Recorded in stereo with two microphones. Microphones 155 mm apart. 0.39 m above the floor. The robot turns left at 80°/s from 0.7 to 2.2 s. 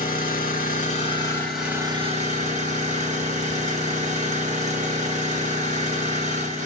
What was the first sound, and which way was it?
An engine running, 65° left.